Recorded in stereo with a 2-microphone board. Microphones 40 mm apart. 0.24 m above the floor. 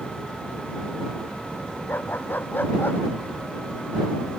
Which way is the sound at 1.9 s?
50° left (ahead or behind).